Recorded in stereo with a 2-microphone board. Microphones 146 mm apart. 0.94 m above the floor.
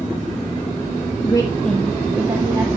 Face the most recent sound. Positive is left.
turn(degrees=-25)  # may be behind; listen again after turning